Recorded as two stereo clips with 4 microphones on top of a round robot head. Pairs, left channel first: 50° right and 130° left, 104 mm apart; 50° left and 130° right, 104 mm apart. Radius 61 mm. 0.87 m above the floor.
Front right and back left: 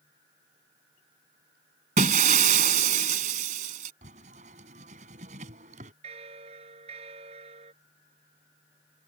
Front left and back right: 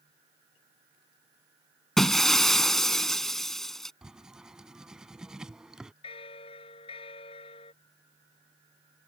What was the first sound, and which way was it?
Breaking glass, 135° left.